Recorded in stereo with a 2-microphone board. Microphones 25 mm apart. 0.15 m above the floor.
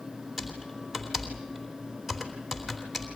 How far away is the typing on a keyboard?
About 3.5 m.